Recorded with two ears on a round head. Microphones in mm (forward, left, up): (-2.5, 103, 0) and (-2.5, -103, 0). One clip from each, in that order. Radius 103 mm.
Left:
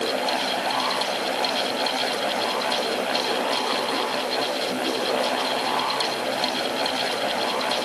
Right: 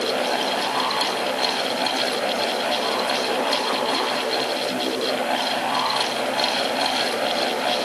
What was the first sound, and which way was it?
Only background noise.